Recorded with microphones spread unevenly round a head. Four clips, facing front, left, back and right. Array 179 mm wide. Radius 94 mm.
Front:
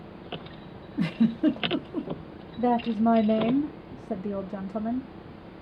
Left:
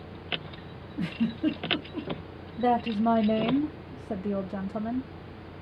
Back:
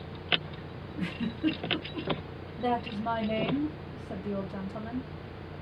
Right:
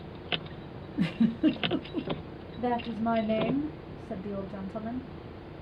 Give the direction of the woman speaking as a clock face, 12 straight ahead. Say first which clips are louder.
Left 5 dB, front 7 dB; 10 o'clock.